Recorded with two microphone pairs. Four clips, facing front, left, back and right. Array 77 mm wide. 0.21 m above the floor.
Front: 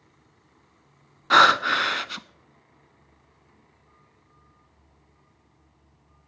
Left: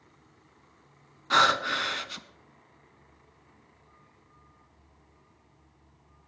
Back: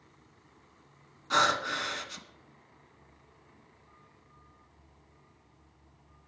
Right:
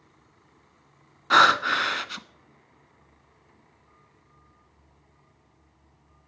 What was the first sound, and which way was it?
Breathing, 30° right.